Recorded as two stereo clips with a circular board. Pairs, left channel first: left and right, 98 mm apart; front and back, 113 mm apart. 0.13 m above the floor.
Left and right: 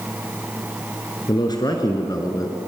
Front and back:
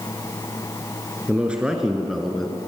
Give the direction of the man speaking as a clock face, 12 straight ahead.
9 o'clock.